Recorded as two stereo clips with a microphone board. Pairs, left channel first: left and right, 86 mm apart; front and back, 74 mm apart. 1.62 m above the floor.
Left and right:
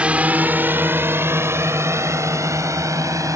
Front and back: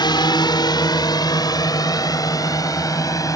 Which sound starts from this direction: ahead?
A drone, at 0.0 s.